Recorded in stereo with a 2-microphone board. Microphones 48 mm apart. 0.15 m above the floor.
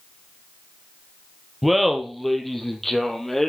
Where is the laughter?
Centre (ahead or behind), 3 m; by 3.5 s 10° left (ahead or behind), 3.5 m.